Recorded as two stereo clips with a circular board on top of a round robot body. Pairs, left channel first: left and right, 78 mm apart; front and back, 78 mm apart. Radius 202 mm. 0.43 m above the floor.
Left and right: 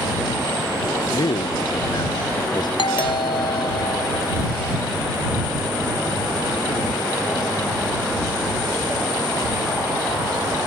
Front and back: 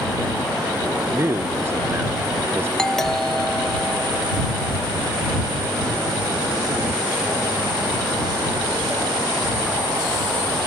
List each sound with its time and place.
1.1 s a man speaking: 120° left
2.8 s a doorbell: 85° left